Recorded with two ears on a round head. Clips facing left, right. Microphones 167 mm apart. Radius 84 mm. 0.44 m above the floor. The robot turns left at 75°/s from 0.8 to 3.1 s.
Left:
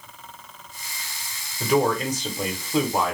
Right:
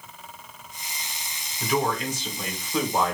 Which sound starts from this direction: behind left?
A man speaking, at 1.6 s.